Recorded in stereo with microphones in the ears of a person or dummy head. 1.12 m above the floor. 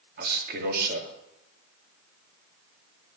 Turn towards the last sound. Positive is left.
turn(degrees=-55)  # may be behind; listen again after turning